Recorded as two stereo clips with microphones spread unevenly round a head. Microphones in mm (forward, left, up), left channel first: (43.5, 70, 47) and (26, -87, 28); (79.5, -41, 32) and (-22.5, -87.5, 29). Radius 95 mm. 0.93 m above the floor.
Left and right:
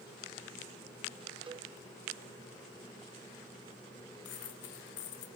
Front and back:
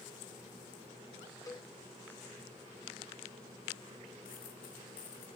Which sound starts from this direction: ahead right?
A cowbell, at 1.5 s.